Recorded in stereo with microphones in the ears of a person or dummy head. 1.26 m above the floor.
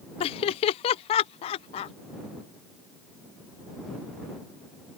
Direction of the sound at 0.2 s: 30° left (ahead or behind).